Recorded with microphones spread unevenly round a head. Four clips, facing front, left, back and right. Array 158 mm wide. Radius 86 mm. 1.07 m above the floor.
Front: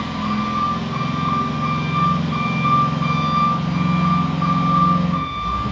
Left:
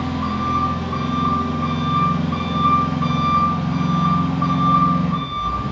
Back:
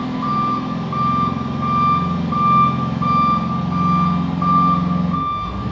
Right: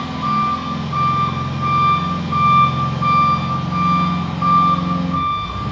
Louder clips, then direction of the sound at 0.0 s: Right 3 dB, back 3 dB; 165° left.